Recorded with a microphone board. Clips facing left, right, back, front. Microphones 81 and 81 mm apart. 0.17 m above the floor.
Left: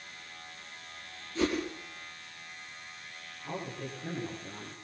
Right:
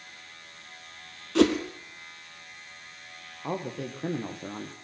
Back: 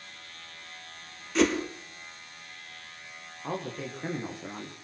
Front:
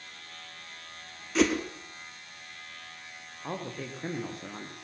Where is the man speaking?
95° right, 6.5 m.